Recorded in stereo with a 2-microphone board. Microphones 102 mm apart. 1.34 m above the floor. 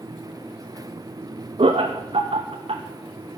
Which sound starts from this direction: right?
Laughter, at 1.6 s.